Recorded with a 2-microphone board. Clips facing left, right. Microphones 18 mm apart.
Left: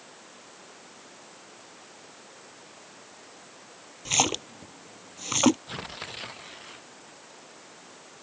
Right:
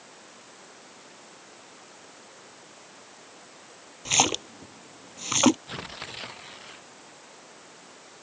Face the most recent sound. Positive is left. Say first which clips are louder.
# even
turn(degrees=-10)  # may be behind; listen again after turning